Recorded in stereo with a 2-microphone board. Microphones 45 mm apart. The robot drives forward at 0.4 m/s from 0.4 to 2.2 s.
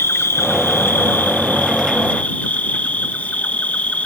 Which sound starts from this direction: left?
An insect, at 0.0 s.